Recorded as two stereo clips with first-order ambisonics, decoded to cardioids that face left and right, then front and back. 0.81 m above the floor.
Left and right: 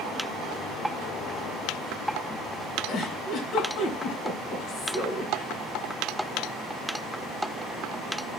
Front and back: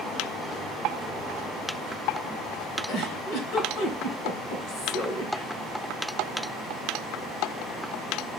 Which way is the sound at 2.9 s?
40° left.